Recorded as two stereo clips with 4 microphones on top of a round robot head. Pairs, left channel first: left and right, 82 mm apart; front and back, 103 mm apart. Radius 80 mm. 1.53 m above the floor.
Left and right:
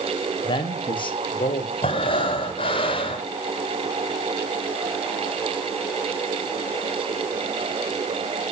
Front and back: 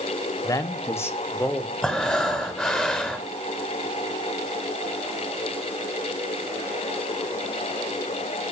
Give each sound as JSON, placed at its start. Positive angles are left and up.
{"t": 0.4, "sound": "a man speaking", "azimuth_deg": 55, "distance_m": 1.3}
{"t": 1.8, "sound": "breathing", "azimuth_deg": 80, "distance_m": 2.0}